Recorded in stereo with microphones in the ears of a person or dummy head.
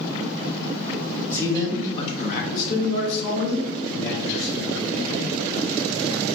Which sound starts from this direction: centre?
A man speaking, at 1.3 s.